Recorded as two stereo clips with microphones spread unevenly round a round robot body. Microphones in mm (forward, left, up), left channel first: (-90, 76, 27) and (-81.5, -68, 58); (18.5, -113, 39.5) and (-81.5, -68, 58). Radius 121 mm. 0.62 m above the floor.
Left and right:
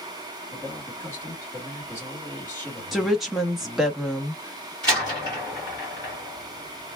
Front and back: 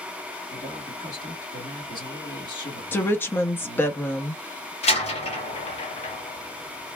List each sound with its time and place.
0.5 s a man speaking: 20° left, 2.5 m
2.9 s a woman speaking: 20° left, 0.6 m
4.8 s a door slam: 15° right, 1.9 m